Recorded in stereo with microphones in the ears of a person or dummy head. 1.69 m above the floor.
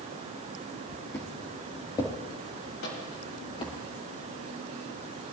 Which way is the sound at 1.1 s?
15° left (ahead or behind).